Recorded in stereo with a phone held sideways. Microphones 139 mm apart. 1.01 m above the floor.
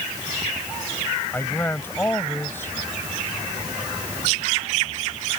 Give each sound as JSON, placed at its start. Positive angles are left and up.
{"t": 1.3, "sound": "a man speaking", "side_deg": 15}